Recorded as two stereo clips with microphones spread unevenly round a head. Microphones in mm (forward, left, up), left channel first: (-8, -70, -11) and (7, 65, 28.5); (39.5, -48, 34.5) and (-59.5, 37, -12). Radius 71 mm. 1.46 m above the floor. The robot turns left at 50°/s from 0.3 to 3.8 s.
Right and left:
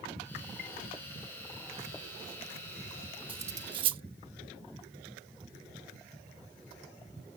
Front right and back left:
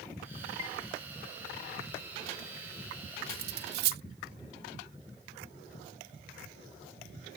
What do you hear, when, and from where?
0.6 s a chime: 95° right; by 0.8 s 100° right
3.3 s cutlery clinking: 160° left; by 4.0 s 135° left